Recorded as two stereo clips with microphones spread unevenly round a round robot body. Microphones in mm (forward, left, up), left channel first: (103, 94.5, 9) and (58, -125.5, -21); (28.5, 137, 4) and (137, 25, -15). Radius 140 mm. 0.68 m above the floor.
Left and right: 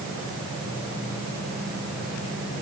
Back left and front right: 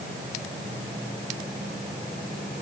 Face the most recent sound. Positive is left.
No sound to turn to.